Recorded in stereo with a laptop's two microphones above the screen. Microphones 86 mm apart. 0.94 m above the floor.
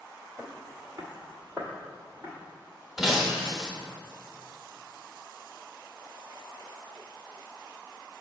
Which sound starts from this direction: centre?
Breaking glass, at 3.0 s.